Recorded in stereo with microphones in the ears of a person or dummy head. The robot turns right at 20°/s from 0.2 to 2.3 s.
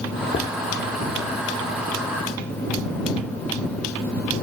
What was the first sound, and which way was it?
Knocking, 40° left (ahead or behind).